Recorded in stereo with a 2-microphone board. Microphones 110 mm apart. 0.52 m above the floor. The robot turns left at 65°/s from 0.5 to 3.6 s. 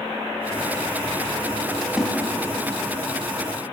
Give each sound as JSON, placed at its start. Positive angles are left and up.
{"t": 1.8, "sound": "a splash", "side_deg": 5, "distance_m": 4.0}